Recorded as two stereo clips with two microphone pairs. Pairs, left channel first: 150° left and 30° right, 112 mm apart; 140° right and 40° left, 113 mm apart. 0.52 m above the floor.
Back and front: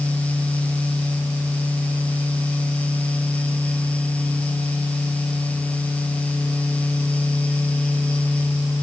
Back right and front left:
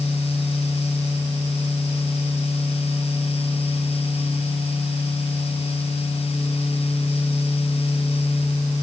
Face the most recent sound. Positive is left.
No sound to turn to.